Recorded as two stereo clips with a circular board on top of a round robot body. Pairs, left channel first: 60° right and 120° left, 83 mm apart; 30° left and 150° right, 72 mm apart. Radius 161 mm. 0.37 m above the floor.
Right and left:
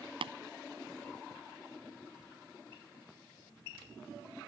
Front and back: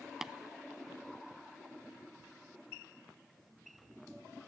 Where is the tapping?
125° left.